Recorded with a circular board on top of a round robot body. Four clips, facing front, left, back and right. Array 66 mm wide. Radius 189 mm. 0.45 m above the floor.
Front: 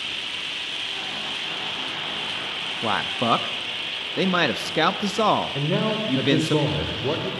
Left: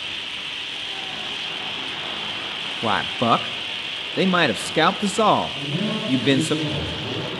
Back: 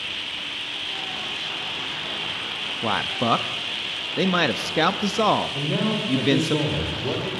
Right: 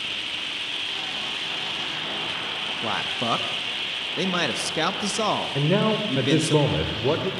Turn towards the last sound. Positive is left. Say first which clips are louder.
# right 4 dB, front 1 dB
turn(degrees=-70)